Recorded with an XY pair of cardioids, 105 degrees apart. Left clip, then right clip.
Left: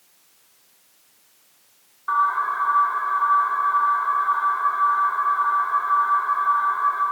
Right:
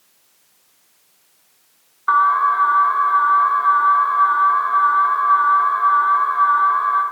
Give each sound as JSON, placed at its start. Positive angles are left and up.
{"t": 2.1, "sound": "an alarm", "azimuth_deg": -60, "distance_m": 0.9}